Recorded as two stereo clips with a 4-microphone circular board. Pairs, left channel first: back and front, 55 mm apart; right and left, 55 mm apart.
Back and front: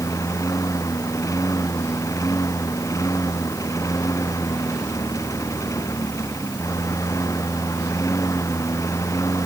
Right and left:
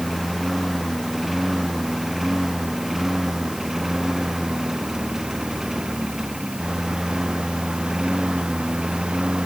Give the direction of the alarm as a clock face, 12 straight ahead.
I don't hear an alarm.